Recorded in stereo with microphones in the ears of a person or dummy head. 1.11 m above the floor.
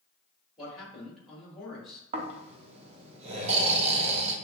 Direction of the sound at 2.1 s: 35° right (ahead or behind).